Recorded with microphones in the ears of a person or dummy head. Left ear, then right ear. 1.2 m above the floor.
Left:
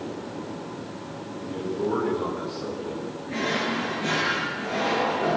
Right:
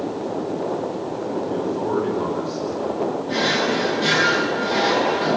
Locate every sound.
1.4 s a man speaking: 45° right (ahead or behind), 9.5 m
3.3 s a drawer: 55° right (ahead or behind), 9.5 m